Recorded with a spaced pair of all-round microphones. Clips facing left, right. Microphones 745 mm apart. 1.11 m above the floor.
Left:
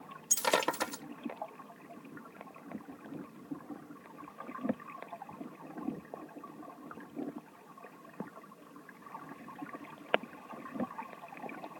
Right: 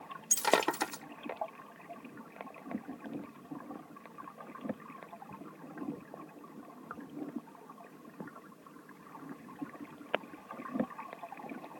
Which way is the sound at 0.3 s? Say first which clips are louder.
Right 2 dB; 10° left (ahead or behind).